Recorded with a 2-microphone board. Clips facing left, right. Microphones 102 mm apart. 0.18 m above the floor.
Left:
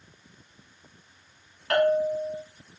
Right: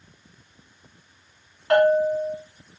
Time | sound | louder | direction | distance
1.7 | a bell | right 5 dB | 20° right (ahead or behind) | 1.6 m